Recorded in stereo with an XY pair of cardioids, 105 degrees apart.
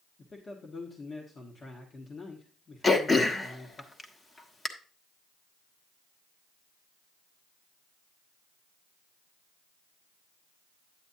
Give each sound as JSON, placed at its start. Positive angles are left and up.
{"t": 0.2, "sound": "a man speaking", "azimuth_deg": 35, "distance_m": 1.3}
{"t": 2.8, "sound": "throat clearing", "azimuth_deg": 25, "distance_m": 1.1}